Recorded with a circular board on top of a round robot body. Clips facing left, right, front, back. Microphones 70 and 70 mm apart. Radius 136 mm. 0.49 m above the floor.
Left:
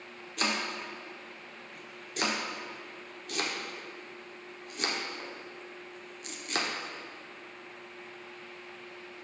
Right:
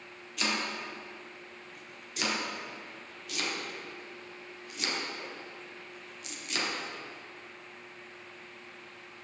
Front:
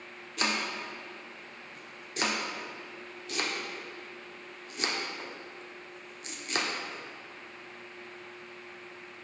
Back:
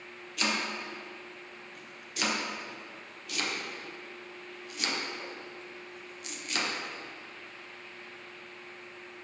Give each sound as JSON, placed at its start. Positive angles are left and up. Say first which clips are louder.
{"t": 0.4, "sound": "chopping", "louder": "left 1 dB, even", "azimuth_deg": 50, "distance_m": 1.5}